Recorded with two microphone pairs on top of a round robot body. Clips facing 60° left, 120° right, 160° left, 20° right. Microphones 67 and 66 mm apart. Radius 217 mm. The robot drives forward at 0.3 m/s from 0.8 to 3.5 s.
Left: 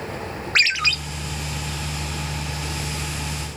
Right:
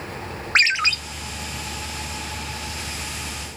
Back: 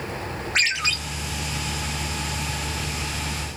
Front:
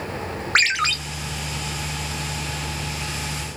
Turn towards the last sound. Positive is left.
turn(degrees=-140)